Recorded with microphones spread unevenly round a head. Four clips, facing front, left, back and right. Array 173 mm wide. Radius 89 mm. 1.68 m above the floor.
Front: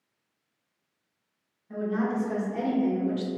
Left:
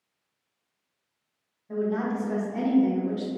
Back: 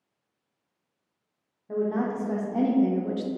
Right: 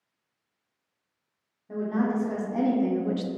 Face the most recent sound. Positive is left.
turn(degrees=-90)